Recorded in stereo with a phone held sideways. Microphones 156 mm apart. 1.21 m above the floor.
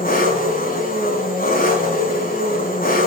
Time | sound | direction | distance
0.0 | an engine running | 75° left (ahead or behind) | 5 m